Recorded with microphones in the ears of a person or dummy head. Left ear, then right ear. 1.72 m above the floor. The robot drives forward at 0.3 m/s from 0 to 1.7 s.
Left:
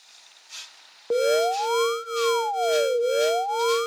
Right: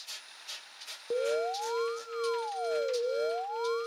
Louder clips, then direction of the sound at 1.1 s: Left 9 dB; 65° left (ahead or behind).